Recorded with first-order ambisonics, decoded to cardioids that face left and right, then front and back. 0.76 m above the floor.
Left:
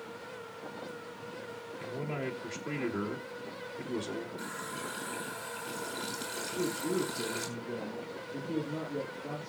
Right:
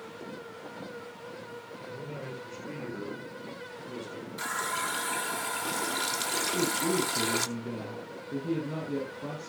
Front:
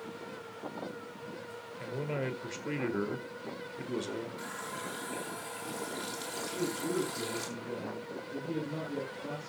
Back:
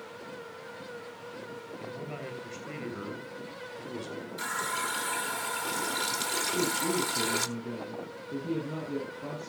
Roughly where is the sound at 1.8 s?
Ahead left.